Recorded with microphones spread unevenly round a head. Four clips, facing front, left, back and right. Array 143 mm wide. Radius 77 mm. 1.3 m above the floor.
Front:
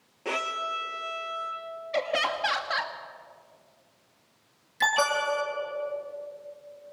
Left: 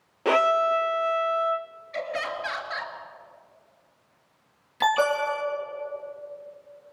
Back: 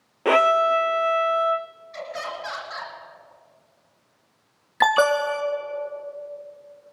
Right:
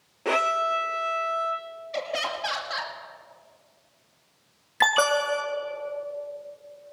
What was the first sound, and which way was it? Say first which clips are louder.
A violin: left 3 dB, back 14 dB; 170° left.